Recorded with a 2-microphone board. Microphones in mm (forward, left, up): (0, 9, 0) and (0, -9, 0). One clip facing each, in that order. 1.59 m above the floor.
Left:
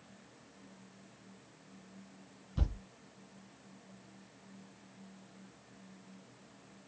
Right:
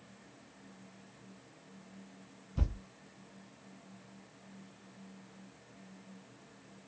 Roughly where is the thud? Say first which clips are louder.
Right 1 dB; centre.